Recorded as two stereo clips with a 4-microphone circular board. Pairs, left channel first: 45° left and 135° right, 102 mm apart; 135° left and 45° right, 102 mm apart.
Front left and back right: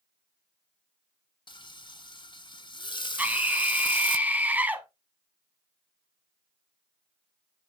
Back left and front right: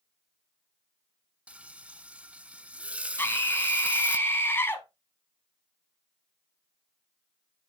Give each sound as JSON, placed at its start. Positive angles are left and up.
{"t": 1.5, "sound": "frying", "azimuth_deg": 30, "distance_m": 0.6}
{"t": 3.2, "sound": "a scream", "azimuth_deg": 170, "distance_m": 1.7}